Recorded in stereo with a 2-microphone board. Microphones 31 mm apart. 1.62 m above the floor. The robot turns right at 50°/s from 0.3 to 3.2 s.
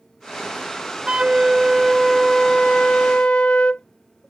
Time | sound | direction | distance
1.1 | a flute | 45° right | ?